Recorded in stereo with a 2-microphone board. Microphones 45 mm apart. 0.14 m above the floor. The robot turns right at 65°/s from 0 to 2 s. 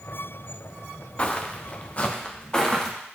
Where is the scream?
No scream in this recording.